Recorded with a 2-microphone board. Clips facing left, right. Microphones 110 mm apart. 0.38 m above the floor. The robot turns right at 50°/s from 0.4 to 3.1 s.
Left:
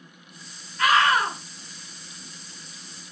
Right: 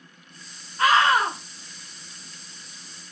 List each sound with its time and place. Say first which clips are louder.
0.8 s a scream: right 1 dB; 30° right (ahead or behind), 0.9 m; by 1.4 s 25° right (ahead or behind), 0.9 m